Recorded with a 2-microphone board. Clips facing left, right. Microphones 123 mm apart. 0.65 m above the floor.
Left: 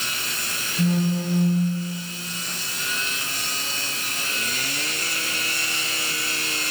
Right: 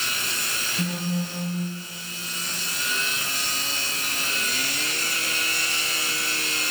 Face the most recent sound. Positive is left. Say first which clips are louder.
# left 6 dB
turn(degrees=0)  # may be behind; listen again after turning